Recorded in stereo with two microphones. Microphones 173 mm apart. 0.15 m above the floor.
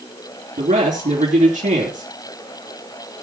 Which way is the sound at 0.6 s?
45° right (ahead or behind).